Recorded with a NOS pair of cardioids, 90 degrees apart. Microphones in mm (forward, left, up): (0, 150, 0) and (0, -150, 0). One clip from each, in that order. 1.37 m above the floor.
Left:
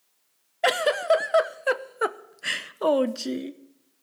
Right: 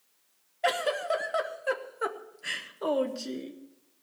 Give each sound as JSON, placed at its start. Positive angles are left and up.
{"t": 0.6, "sound": "a giggle", "azimuth_deg": 35, "distance_m": 0.8}